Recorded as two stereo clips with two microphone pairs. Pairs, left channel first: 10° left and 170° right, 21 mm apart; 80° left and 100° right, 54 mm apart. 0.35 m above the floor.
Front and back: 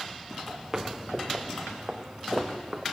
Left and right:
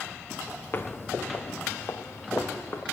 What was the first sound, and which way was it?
Footsteps, 120° left.